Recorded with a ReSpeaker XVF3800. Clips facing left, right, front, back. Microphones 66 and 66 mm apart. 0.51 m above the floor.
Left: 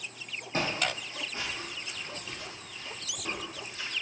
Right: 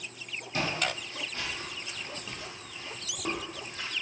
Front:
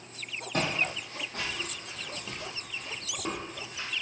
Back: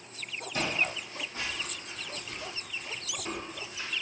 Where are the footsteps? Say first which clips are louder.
Even, front 1 dB; 35° left, 1.3 m; by 3.9 s 45° right, 1.5 m.